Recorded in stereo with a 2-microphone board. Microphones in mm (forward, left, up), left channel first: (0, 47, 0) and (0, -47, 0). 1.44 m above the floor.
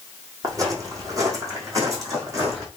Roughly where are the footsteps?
Right.